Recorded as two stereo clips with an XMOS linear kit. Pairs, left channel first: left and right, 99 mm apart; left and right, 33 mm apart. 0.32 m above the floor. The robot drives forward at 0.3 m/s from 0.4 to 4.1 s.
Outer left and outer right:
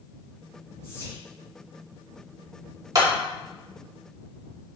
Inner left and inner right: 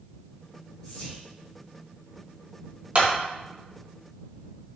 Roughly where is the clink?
No clink in this recording.